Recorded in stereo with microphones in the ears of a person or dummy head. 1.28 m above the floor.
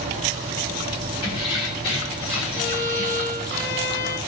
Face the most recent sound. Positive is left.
turn(degrees=50)  # may be behind; listen again after turning